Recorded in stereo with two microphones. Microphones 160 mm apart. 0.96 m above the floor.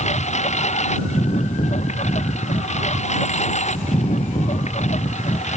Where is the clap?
I don't hear a clap.